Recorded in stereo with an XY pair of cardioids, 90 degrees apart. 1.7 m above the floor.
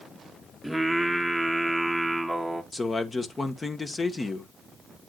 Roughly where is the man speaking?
Ahead left.